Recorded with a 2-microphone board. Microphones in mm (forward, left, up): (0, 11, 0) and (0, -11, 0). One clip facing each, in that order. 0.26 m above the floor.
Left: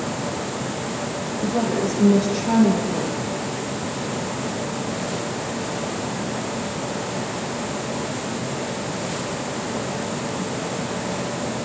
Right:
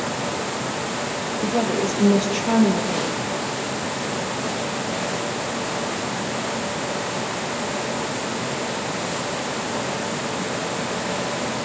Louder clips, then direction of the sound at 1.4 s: Even; 60° right (ahead or behind).